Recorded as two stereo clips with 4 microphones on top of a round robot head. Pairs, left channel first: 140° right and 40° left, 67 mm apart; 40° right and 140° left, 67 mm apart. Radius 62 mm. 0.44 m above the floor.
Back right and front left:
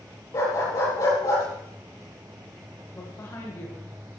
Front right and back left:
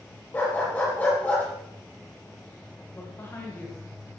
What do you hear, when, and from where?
0.3 s a dog barking: 105° right, 7 m
2.9 s a woman speaking: 95° right, 3.5 m